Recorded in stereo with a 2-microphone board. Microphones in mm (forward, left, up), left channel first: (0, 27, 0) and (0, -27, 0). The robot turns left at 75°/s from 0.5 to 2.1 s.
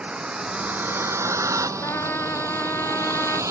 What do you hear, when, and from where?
0.0 s a vehicle: 20° right (ahead or behind); by 3.5 s 70° right (ahead or behind)
1.8 s a trumpet: 65° left (ahead or behind); by 3.4 s 45° left (ahead or behind)